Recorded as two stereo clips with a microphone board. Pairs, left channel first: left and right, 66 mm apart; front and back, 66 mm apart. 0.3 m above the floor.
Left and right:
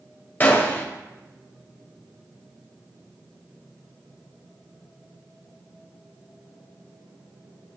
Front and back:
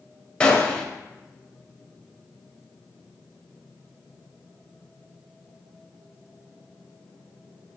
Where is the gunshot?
60° left, 0.5 m.